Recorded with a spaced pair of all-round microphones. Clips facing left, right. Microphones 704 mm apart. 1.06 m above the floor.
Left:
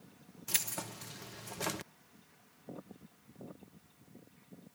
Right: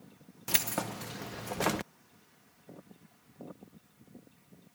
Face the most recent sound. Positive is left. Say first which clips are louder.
# right 10 dB
turn(degrees=-80)